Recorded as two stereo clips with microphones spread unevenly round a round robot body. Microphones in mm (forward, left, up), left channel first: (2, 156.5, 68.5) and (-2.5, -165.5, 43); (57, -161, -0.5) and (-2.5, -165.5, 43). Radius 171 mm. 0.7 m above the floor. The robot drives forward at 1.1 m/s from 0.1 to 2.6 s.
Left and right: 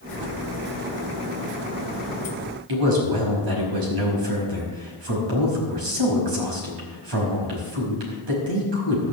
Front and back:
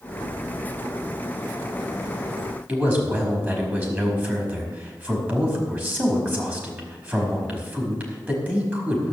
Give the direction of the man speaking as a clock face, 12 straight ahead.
4 o'clock.